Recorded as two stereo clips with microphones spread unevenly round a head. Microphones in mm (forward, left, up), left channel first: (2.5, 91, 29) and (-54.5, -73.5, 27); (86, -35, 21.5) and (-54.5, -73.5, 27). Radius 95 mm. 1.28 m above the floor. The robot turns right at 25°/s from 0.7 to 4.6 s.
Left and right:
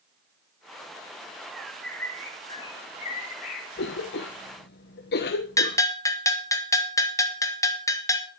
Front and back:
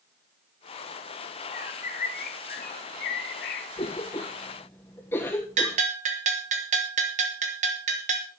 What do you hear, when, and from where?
1.5 s a bird: 25° right, 2 m; by 3.7 s 30° left, 2 m
3.8 s a cough: 70° left, 1.0 m; by 5.8 s 95° left, 1.0 m
5.6 s a bell: 145° left, 1.6 m